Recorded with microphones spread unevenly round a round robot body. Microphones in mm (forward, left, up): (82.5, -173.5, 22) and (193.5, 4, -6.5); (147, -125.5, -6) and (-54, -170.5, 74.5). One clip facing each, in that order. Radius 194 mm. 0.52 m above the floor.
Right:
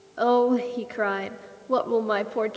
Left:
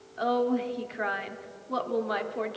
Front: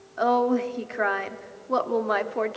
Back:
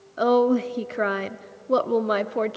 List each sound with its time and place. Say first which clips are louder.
0.2 s a woman speaking: right 6 dB, back 4 dB; 110° right, 0.8 m